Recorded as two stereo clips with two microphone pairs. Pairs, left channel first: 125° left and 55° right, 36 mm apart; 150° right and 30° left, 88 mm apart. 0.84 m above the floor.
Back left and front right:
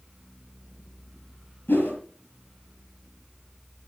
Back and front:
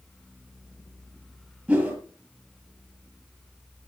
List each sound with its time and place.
1.7 s a whoosh: 110° left, 6 m